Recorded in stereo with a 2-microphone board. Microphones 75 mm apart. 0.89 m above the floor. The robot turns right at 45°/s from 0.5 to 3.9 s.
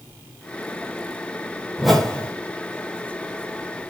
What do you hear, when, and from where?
1.8 s a whoosh: 5° right (ahead or behind), 1.9 m; by 2.3 s 20° left (ahead or behind), 1.9 m